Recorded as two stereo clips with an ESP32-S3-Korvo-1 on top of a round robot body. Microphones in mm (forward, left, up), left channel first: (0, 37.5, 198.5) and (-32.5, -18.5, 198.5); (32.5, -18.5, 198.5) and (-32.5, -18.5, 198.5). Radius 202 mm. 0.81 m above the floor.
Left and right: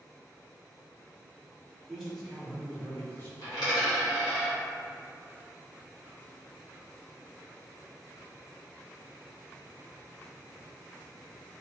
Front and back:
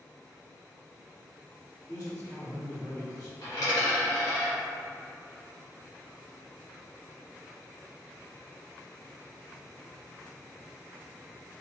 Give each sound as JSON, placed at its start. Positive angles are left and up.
{"t": 1.9, "sound": "a man speaking", "azimuth_deg": -25, "distance_m": 1.6}
{"t": 3.4, "sound": "a dropped coin", "azimuth_deg": 35, "distance_m": 0.7}